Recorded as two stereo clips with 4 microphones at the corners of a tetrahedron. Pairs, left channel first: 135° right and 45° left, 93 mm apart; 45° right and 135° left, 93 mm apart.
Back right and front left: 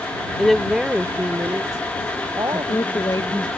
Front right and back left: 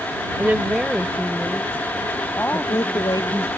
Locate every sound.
0.4 s a woman speaking: 150° left; by 3.5 s 15° left
2.5 s a woman speaking: 85° right